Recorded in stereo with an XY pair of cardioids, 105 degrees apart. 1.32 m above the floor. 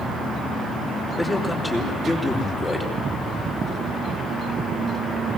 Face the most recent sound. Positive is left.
turn(degrees=15)